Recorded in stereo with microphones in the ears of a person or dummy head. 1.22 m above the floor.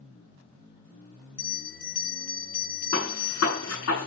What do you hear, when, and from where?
1.4 s a bell: 80° left, 2.5 m
2.9 s a gunshot: 85° left, 8.5 m